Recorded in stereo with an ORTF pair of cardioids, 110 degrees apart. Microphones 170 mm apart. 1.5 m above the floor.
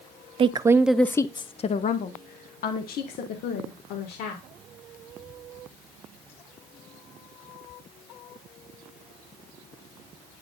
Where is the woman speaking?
35° right, 0.7 m; by 4.4 s 70° left, 2.5 m.